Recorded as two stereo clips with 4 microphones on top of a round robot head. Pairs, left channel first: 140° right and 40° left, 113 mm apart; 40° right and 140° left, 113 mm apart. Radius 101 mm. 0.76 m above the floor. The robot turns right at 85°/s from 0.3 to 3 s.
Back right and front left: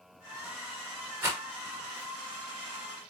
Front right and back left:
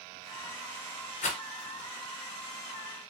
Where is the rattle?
30° right, 1.3 m; by 1.4 s 15° right, 1.3 m.